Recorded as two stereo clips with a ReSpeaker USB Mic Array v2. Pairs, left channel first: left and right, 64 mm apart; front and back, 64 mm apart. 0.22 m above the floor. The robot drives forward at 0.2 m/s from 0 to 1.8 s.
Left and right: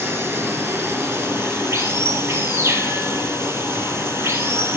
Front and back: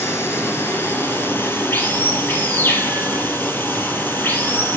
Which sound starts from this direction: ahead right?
Running water, at 0.0 s.